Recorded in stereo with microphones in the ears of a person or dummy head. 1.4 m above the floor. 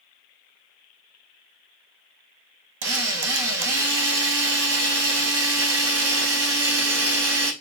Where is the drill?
65° right (ahead or behind), 0.8 m.